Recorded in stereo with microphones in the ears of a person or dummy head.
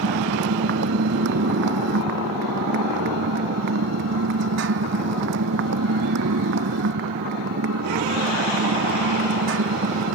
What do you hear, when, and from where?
0.0 s a motorcycle: 60° right (ahead or behind); by 10.2 s 65° right (ahead or behind)